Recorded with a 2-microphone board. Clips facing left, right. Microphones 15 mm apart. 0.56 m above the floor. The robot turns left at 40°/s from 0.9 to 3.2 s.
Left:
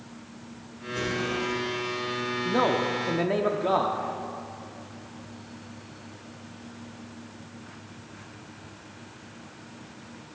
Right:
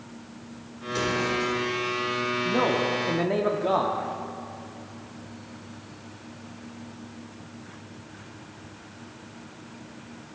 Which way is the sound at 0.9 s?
55° right (ahead or behind).